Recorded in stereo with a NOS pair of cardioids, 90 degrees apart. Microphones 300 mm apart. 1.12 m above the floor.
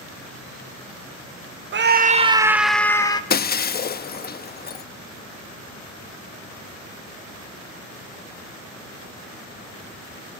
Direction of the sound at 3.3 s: 35° left.